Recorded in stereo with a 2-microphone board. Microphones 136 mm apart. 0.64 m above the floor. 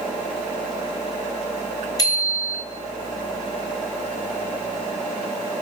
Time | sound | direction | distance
2.0 | a bicycle bell | 30° left (ahead or behind) | 5.5 m